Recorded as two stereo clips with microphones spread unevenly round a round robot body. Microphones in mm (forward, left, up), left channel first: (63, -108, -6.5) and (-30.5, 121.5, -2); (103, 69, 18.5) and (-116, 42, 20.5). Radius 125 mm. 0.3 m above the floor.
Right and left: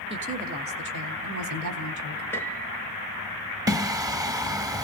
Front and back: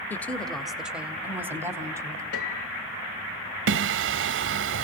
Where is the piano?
15° left, 2 m.